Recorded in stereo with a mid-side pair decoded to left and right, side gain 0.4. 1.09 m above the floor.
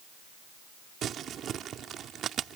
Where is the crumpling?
65° right.